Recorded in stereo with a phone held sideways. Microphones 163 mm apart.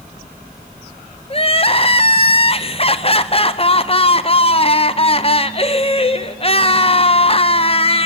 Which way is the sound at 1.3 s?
35° left (ahead or behind).